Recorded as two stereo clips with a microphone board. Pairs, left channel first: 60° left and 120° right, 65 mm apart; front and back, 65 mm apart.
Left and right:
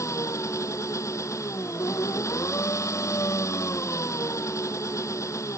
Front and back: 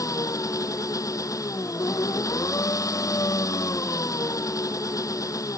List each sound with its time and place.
0.0 s an engine running: 25° left